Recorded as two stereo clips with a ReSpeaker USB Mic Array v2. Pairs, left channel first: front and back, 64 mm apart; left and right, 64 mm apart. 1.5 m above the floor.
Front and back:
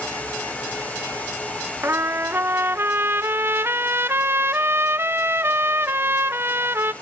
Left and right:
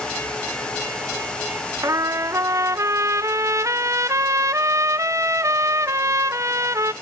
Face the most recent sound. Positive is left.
turn(degrees=-125)